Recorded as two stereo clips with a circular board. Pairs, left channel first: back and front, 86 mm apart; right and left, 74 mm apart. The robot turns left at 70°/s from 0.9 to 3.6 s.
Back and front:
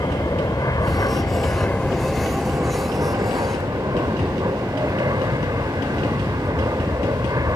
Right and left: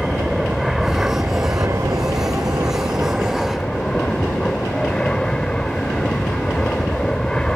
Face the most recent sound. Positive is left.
turn(degrees=-15)